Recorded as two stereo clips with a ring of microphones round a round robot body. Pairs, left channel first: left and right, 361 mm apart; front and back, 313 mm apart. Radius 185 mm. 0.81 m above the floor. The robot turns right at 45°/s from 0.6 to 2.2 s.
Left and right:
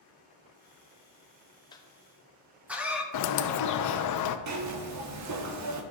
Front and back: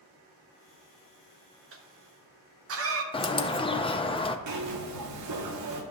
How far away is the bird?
About 0.7 m.